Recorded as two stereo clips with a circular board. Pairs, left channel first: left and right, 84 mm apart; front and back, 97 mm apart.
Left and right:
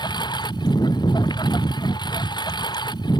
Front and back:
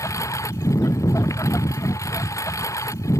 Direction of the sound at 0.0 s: 60° left.